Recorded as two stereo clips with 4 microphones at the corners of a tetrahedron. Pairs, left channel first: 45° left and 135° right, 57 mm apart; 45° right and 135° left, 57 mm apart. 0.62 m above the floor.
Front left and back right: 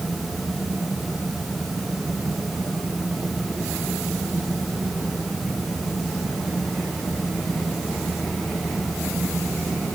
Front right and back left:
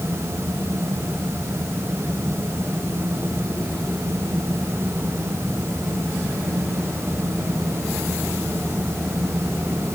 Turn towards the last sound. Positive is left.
No sound to turn to.